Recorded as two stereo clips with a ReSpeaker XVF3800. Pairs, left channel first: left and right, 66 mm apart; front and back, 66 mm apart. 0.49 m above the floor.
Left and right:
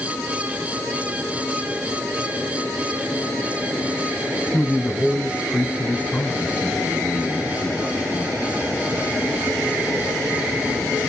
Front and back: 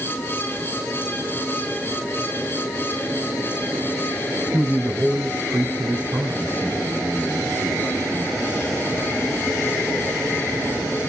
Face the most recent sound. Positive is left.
turn(degrees=150)